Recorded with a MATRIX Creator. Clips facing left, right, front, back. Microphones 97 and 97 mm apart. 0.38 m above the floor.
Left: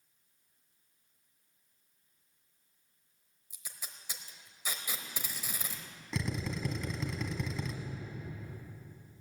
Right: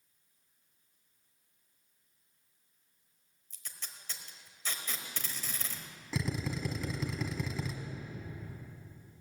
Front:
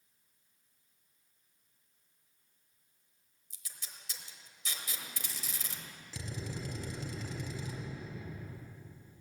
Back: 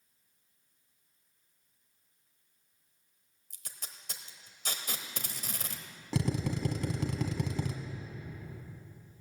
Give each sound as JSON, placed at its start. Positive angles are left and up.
{"t": 3.5, "sound": "tape being pulled", "azimuth_deg": 165, "distance_m": 1.1}
{"t": 6.1, "sound": "a drill", "azimuth_deg": 180, "distance_m": 1.2}